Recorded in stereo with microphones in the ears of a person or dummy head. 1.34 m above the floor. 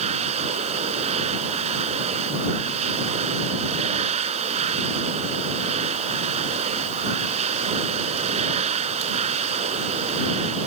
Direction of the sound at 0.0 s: 35° right (ahead or behind).